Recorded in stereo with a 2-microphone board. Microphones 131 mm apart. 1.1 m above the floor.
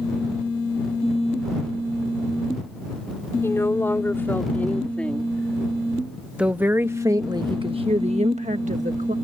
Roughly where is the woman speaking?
Left.